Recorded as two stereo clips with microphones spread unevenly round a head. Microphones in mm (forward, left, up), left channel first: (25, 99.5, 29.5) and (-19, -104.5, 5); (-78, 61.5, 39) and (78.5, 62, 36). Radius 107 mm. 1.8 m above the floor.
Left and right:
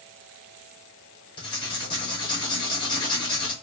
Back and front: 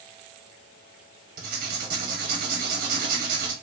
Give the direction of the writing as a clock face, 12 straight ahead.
12 o'clock.